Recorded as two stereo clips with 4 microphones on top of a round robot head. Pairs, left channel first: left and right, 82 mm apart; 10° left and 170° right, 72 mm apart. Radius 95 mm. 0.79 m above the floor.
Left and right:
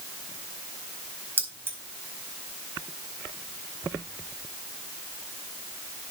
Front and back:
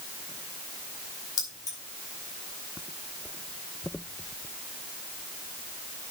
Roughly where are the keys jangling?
Ahead right.